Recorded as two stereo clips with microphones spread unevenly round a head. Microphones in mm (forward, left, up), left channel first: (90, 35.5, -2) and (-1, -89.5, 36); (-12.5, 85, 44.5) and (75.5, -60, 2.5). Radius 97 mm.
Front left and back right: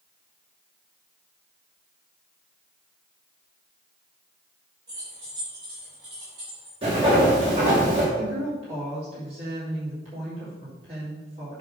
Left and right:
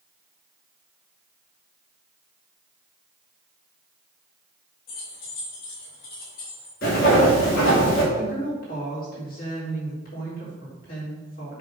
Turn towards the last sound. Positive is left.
turn(degrees=170)